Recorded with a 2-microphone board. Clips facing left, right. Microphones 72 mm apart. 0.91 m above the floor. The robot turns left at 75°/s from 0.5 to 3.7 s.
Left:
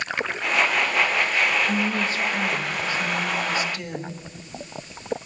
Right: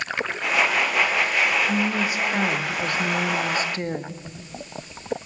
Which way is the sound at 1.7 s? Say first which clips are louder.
Right 1 dB; 15° left.